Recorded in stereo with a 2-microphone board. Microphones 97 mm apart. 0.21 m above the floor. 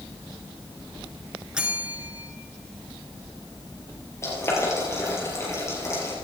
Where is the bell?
10° right (ahead or behind), 2 m.